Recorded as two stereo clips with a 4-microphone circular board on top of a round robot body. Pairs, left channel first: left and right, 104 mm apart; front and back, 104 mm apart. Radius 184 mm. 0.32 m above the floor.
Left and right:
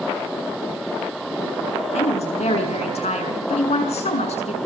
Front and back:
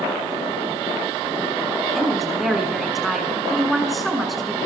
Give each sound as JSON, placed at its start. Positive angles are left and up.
{"t": 1.9, "sound": "a woman speaking", "azimuth_deg": 90, "distance_m": 6.0}